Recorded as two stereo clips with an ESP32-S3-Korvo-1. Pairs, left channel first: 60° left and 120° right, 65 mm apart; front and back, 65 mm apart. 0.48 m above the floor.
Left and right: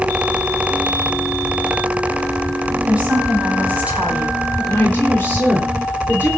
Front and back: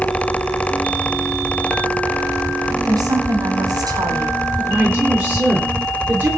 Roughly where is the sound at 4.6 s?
Behind left.